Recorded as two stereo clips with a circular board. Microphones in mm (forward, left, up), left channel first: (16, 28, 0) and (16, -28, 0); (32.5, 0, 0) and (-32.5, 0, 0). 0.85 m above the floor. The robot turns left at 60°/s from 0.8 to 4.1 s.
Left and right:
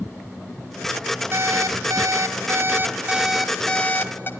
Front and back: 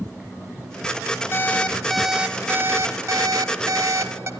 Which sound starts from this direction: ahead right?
An alarm clock, at 1.3 s.